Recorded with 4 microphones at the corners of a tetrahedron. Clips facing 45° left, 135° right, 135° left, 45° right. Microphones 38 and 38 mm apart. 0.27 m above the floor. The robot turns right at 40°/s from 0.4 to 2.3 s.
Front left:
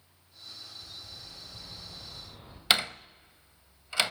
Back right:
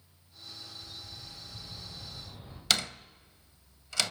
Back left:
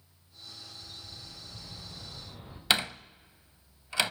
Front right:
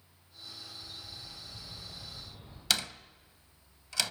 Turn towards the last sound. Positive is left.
turn(degrees=95)